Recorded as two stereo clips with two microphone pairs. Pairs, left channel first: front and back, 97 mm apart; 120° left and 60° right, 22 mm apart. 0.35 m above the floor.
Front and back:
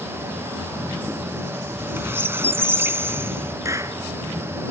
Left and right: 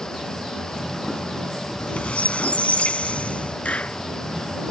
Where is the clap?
125° left.